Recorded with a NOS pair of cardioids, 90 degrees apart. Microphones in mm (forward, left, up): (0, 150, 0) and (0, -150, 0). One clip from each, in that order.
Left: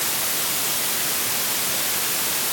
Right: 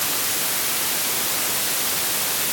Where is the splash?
No splash in this recording.